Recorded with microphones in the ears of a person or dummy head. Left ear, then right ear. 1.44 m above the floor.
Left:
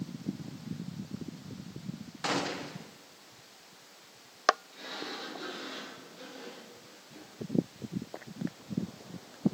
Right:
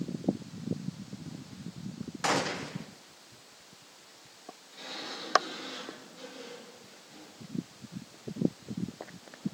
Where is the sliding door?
5° right (ahead or behind), 8.5 m.